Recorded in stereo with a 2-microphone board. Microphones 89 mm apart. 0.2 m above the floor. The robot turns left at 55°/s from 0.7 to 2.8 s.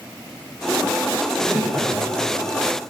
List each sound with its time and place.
1.2 s laughter: 5° right (ahead or behind), 7.5 m; by 2.2 s 60° right (ahead or behind), 7.5 m